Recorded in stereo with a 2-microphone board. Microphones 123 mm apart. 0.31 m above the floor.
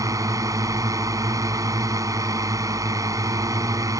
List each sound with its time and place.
0.0 s a drone: 25° right (ahead or behind)